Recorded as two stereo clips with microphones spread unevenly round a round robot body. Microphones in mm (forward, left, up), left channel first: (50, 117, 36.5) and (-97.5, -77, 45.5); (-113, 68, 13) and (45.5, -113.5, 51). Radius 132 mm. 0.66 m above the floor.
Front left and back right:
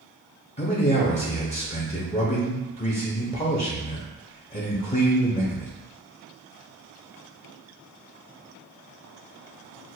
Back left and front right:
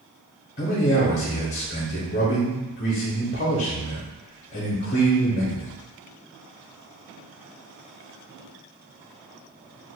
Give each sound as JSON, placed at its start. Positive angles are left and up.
{"t": 0.6, "sound": "a man speaking", "azimuth_deg": 100, "distance_m": 0.8}